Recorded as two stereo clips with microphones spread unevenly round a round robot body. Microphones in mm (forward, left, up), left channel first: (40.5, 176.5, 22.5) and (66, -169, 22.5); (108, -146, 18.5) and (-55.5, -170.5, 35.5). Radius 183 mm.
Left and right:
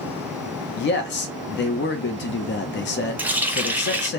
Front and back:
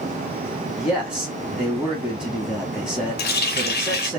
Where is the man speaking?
100° left, 0.5 m.